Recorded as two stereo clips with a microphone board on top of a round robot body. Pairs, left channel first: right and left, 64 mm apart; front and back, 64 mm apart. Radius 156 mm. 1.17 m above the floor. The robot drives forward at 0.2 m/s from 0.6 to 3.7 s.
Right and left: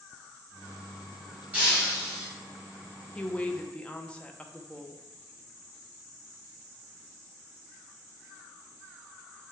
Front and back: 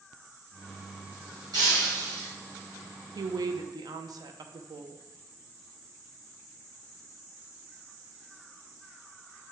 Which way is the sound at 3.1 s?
160° right.